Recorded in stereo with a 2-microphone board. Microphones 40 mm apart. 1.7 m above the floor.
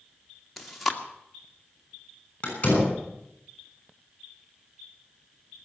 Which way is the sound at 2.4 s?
30° left (ahead or behind).